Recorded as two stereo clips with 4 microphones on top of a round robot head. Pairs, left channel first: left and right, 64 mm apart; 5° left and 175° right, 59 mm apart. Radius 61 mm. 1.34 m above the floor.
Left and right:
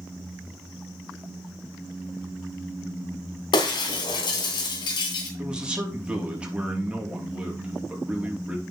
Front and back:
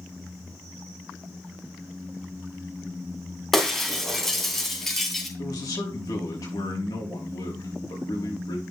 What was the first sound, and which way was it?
Breaking glass, 90° left.